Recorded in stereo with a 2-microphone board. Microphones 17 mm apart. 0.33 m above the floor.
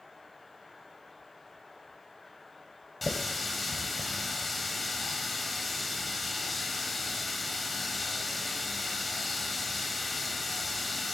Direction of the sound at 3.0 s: 5° left (ahead or behind).